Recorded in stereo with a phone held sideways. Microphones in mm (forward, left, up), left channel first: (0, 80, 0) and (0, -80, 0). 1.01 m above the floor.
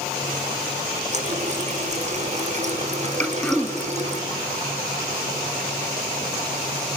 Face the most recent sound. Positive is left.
turn(degrees=5)  # may be behind; listen again after turning